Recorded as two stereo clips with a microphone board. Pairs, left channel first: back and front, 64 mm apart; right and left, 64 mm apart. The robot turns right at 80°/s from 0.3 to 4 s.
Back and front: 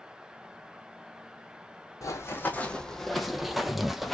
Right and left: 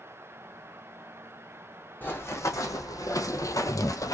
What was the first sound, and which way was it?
Running footsteps, 150° right.